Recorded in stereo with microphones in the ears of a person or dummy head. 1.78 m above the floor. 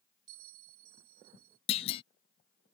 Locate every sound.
0.3 s a bell: 55° right (ahead or behind)
1.7 s a clunk: 35° left (ahead or behind)